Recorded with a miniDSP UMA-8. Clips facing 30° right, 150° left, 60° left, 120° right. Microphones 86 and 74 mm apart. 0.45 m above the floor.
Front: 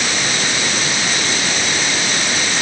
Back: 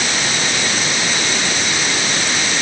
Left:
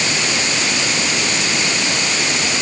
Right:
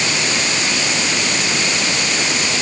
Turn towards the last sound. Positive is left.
No sound to turn to.